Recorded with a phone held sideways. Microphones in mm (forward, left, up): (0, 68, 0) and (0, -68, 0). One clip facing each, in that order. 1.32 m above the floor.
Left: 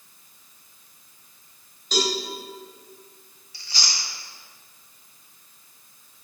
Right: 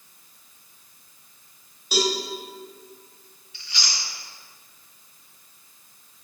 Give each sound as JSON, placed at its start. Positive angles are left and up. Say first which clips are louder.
{"t": 1.9, "sound": "a cowbell", "louder": "right 1 dB", "side_deg": -10, "distance_m": 2.5}
{"t": 3.5, "sound": "chewing", "louder": "left 1 dB", "side_deg": 35, "distance_m": 1.1}